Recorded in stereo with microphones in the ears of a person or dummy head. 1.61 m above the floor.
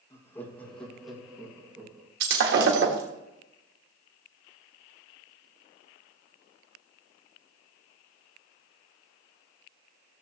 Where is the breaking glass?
55° right (ahead or behind), 1.5 m.